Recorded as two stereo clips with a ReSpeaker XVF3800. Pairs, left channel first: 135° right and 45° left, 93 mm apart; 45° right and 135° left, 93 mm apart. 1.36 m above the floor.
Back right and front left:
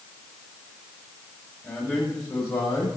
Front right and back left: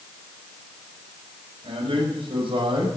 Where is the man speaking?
155° left, 6 m; by 2.9 s 160° left, 6.5 m.